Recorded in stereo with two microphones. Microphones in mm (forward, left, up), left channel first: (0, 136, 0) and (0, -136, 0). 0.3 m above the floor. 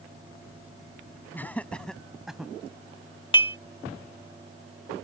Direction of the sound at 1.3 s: 5° left (ahead or behind).